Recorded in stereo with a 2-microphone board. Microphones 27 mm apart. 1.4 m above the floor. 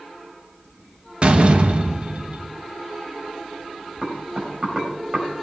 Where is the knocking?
30° right (ahead or behind), 4.5 m.